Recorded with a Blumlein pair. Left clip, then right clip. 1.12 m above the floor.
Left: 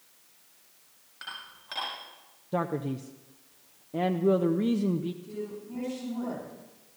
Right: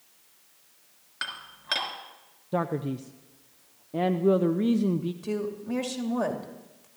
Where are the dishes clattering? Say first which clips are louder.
Right 5 dB; 60° right, 4 m.